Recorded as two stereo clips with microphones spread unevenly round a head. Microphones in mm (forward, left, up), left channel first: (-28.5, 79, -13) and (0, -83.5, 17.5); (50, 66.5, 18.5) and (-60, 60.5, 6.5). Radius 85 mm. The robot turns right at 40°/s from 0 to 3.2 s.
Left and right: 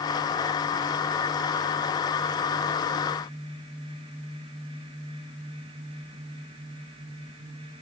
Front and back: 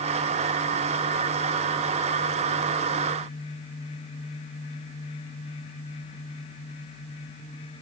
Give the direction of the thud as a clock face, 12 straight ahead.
No thud in this recording.